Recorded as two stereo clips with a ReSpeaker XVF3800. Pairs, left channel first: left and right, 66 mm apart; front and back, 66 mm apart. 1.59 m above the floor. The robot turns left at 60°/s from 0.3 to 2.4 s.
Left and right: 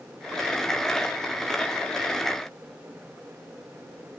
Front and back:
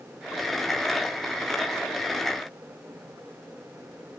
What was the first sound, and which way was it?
Only background noise.